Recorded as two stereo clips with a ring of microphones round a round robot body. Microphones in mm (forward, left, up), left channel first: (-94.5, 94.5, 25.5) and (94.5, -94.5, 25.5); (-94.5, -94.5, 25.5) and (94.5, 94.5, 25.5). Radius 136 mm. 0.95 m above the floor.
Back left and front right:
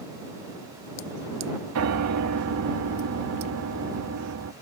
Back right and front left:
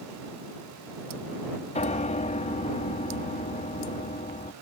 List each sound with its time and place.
1.8 s a piano: 70° right